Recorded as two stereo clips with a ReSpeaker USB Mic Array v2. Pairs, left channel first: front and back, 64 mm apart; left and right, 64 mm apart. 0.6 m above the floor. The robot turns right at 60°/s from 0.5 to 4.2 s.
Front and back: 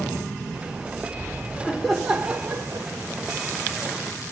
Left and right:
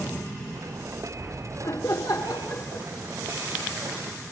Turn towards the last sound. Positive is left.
turn(degrees=-135)